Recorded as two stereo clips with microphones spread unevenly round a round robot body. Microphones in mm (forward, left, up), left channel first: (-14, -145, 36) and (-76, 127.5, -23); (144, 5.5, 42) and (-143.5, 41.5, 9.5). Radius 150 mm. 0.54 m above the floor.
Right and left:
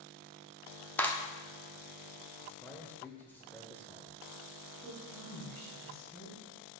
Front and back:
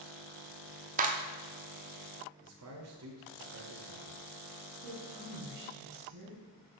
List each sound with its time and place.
1.0 s a clap: 175° right, 0.8 m
2.4 s a man speaking: 165° right, 1.9 m
4.8 s a woman speaking: 160° right, 4 m